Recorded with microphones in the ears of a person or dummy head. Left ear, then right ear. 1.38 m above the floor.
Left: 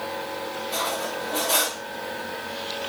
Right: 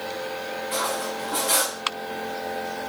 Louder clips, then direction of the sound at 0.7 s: Even; 35° right (ahead or behind).